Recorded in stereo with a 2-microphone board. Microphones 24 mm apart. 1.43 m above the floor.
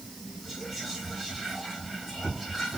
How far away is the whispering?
About 2 m.